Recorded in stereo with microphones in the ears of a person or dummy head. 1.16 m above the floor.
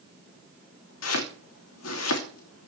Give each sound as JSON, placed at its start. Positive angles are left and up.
{"t": 1.0, "sound": "chopping", "side_deg": 70, "distance_m": 2.5}